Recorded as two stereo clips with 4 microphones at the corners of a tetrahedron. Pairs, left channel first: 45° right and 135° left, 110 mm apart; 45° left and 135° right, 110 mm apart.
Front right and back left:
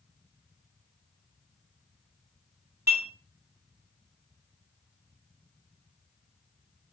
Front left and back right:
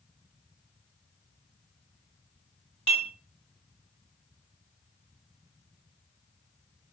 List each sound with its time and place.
2.9 s dishes clattering: 70° left, 1.5 m